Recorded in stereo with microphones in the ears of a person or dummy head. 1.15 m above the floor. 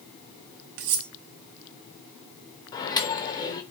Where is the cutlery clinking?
60° right (ahead or behind), 0.9 m.